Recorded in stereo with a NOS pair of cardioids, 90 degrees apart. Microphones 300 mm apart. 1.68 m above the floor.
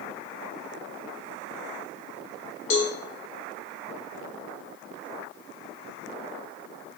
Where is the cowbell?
45° left, 0.6 m.